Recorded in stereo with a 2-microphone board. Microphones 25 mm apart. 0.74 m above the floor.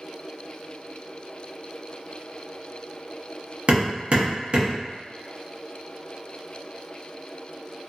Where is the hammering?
45° right (ahead or behind), 0.8 m.